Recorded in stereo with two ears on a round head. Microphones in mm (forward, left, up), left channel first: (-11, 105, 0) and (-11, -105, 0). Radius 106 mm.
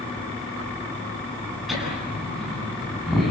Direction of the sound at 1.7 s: Centre (ahead or behind).